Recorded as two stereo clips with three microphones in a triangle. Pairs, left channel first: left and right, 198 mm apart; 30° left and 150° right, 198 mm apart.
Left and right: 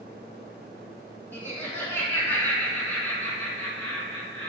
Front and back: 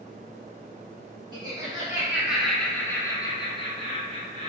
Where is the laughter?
165° left, 1.2 m; by 4.5 s 10° left, 1.4 m.